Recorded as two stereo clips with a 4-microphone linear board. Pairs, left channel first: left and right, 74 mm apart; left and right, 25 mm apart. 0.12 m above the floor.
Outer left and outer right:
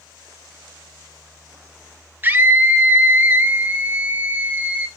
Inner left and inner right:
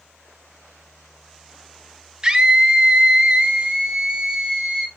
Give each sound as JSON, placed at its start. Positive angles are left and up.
{"t": 2.2, "sound": "a scream", "side_deg": -30, "distance_m": 1.8}